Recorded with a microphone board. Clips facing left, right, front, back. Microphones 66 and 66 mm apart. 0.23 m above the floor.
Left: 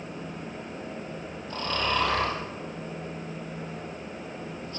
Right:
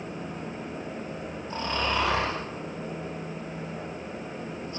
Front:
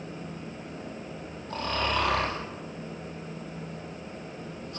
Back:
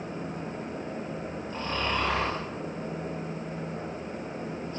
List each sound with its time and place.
1.5 s snoring: 25° right, 5.5 m